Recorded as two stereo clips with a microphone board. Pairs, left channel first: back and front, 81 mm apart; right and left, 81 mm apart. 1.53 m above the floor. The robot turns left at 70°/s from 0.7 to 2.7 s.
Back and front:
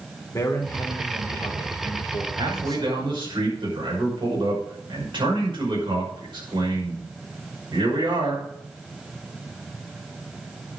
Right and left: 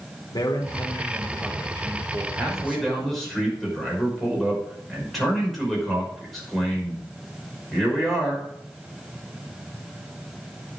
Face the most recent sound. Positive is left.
turn(degrees=0)